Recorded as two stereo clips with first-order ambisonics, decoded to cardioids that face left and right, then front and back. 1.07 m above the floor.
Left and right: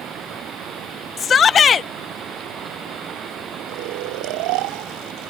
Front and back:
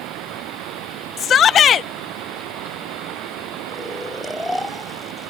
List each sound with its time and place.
0.0 s running water: 145° right
1.2 s a shout: 40° left
3.7 s snoring: 85° right